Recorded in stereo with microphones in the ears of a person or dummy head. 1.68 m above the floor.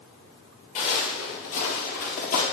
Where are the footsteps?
40° left (ahead or behind), 2.5 m; by 2.4 s 45° left (ahead or behind), 2.5 m.